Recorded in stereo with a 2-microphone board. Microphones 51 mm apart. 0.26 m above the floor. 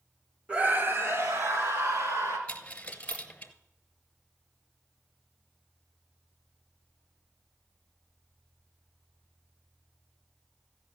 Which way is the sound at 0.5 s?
25° right (ahead or behind).